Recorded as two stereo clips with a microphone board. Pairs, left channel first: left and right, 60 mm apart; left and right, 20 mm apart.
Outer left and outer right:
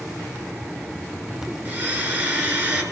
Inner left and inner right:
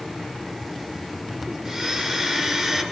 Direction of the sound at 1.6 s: 35° right (ahead or behind).